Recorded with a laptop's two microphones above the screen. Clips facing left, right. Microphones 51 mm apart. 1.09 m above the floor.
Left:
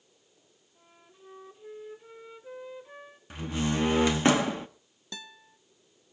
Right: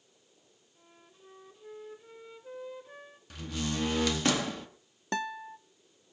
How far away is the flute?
About 0.9 m.